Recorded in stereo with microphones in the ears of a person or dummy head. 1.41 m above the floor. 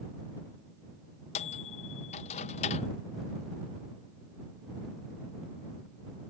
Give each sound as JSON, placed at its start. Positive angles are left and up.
{"t": 1.4, "sound": "a microwave", "side_deg": 30}